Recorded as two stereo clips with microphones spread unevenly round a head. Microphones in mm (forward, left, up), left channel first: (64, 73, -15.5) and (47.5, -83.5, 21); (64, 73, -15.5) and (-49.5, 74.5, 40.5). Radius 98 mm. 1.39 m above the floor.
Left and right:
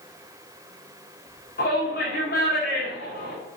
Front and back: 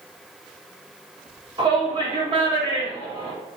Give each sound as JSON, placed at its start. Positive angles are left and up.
{"t": 1.6, "sound": "a shout", "azimuth_deg": 130, "distance_m": 4.0}